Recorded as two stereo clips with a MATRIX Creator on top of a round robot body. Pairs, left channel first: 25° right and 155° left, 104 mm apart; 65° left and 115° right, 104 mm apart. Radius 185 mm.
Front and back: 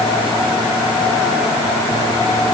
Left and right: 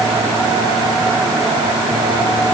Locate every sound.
Only background noise.